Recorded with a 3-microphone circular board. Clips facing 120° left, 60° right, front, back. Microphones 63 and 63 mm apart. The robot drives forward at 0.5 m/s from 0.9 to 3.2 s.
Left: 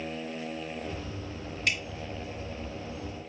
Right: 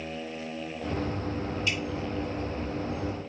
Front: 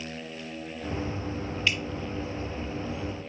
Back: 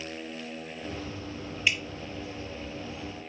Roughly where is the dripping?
Left.